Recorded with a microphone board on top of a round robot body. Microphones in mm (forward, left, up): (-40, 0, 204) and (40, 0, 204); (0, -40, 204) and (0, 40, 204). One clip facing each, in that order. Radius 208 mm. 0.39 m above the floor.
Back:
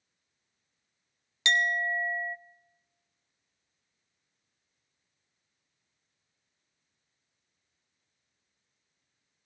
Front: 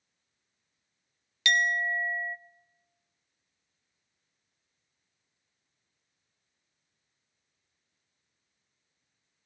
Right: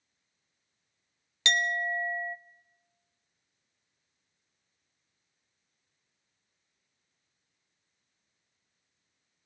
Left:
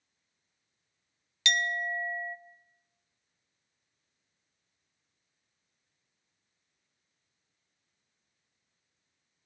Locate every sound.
1.4 s a clink: 125° right, 0.6 m